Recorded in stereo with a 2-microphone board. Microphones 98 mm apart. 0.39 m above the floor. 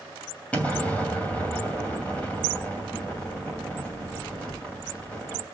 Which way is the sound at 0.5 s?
15° left (ahead or behind).